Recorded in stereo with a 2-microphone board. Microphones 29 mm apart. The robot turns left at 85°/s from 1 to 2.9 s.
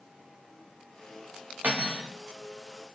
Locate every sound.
1.6 s cutlery clinking: 90° right, 0.8 m; by 2.1 s 130° right, 0.8 m